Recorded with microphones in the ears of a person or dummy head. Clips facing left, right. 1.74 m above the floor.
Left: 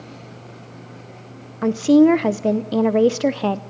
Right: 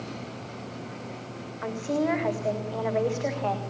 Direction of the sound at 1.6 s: 45° left (ahead or behind).